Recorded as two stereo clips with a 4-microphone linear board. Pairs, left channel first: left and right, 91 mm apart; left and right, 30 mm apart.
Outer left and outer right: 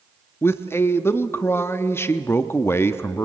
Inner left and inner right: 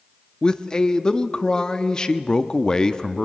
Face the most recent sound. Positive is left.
turn(degrees=25)  # may be behind; listen again after turning